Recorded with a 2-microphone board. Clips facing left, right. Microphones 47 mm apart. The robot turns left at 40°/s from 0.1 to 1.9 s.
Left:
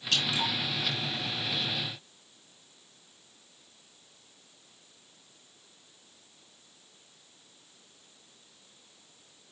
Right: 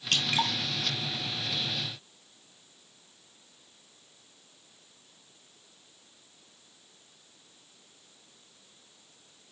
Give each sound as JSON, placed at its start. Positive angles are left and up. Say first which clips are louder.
{"t": 0.1, "sound": "dripping", "louder": "right 2 dB", "side_deg": -55, "distance_m": 1.4}